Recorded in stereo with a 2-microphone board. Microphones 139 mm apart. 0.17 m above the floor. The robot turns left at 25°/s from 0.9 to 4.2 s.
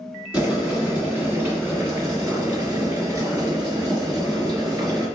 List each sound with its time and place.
0.3 s boiling: 20° right, 1.8 m; by 5.1 s 100° right, 1.8 m